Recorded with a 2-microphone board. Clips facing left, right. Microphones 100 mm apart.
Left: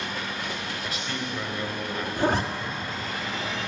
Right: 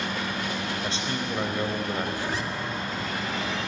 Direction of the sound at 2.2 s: 50° left (ahead or behind).